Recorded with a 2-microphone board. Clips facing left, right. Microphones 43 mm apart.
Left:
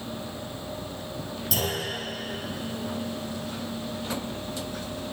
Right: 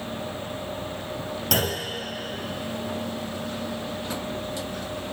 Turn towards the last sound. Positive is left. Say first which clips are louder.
# right 3 dB
turn(degrees=-50)  # may be behind; listen again after turning